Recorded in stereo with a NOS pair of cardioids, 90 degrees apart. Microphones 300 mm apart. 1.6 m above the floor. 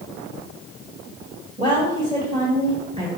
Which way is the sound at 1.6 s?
25° right.